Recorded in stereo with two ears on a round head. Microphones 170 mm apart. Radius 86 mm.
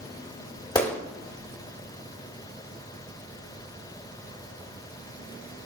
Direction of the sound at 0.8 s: 20° left (ahead or behind).